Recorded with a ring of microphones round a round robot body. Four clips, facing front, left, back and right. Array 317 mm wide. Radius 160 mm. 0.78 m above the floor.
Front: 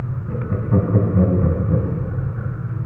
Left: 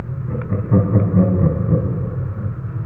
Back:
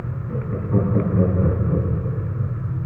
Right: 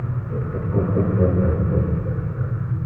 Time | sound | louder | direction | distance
0.3 | laughter | left 7 dB, front 2 dB | 60° left | 6 m